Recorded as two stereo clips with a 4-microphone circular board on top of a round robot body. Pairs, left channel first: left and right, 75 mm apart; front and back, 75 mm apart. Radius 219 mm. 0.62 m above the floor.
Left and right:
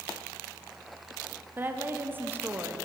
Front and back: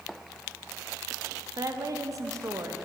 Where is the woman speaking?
150° right, 1.2 m.